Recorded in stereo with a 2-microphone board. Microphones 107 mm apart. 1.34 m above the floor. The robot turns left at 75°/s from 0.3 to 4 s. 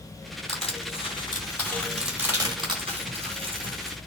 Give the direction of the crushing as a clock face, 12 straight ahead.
8 o'clock.